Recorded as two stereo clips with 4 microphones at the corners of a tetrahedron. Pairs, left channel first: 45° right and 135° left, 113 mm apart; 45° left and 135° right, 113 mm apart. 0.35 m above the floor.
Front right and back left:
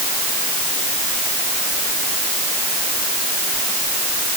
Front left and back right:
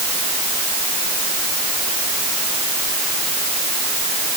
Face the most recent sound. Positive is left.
No sound to turn to.